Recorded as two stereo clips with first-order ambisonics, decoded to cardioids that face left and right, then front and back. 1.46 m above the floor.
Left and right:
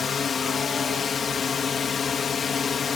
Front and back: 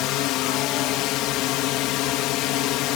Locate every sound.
0.0 s a drone: 25° left